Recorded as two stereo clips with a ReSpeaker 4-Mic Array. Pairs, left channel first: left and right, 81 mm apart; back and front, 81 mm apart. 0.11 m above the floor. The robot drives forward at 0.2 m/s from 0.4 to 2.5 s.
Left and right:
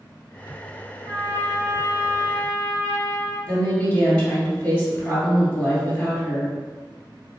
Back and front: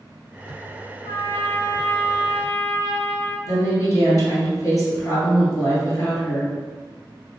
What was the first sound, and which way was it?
A trumpet, 140° left.